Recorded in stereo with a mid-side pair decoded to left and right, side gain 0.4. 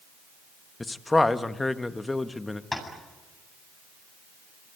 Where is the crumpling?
I don't hear crumpling.